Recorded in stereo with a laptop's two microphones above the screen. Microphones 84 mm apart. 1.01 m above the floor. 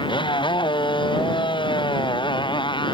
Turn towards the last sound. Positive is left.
turn(degrees=70)  # may be behind; listen again after turning